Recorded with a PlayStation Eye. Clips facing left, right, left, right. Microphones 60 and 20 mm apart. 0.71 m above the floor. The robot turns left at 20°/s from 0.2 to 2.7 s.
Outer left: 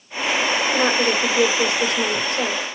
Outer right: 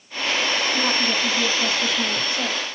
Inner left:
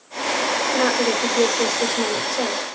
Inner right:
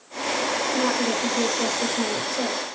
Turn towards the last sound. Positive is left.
turn(degrees=50)